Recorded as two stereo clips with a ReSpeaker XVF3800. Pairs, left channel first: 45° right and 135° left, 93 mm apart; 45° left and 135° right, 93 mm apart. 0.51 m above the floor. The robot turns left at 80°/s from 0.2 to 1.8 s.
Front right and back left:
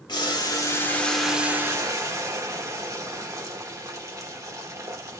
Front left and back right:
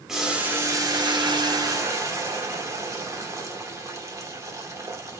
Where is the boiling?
50° right, 0.8 m; by 5.2 s straight behind, 0.8 m.